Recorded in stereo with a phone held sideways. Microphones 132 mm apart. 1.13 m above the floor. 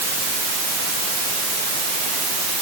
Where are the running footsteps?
I don't hear running footsteps.